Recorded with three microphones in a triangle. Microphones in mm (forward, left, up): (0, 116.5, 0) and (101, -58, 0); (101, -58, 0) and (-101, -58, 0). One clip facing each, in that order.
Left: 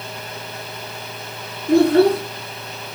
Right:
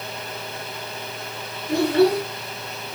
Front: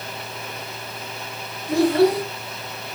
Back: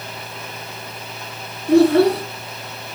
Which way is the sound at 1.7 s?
155° left.